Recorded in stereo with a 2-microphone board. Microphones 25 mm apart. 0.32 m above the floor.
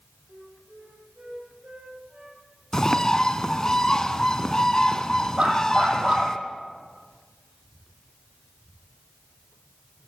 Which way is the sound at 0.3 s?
75° right (ahead or behind).